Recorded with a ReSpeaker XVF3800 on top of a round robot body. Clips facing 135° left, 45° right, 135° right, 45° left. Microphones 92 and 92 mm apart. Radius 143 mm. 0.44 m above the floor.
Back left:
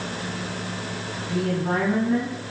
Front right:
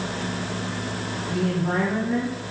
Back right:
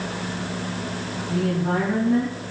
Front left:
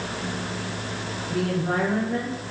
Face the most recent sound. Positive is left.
turn(degrees=-130)